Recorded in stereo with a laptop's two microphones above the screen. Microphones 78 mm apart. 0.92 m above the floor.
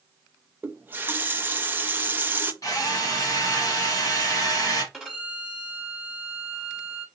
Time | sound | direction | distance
0.6 | a running tap | 25° right (ahead or behind) | 0.5 m
2.6 | a drill | 45° left (ahead or behind) | 1.3 m
4.9 | a violin | centre (ahead or behind) | 1.6 m